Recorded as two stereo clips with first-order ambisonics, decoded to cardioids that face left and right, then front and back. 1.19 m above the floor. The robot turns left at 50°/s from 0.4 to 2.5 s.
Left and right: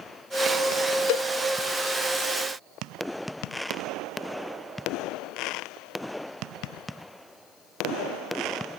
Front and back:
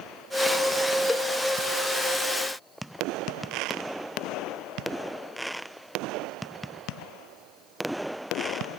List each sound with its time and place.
1.1 s a cowbell: 75° left, 0.5 m; by 1.3 s 70° left, 0.5 m